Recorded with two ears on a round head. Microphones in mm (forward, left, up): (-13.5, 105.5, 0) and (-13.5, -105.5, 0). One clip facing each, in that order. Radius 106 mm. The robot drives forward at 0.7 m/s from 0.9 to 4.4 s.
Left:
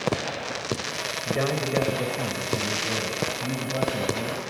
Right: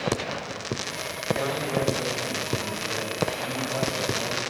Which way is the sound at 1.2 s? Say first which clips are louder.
Left 2 dB; 60° left (ahead or behind).